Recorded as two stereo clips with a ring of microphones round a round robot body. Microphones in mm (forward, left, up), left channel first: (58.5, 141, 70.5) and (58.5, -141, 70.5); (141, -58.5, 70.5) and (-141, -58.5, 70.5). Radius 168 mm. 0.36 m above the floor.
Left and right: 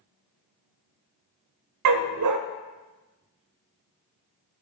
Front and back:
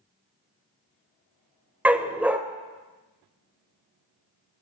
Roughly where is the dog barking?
Right.